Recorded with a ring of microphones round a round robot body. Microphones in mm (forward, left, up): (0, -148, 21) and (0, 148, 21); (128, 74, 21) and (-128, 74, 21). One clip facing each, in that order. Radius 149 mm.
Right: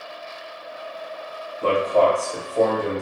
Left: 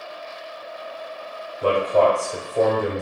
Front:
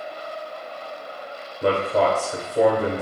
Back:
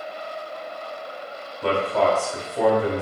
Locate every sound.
1.6 s a man speaking: 20° left, 1.0 m